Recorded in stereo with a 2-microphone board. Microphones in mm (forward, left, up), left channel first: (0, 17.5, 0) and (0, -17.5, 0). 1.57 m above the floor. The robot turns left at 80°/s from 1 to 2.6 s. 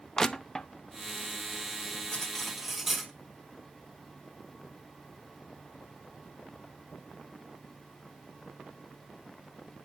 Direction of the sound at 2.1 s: 30° left.